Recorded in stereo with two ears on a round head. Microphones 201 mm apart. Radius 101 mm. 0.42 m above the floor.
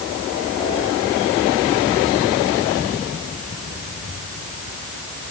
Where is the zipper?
No zipper in this recording.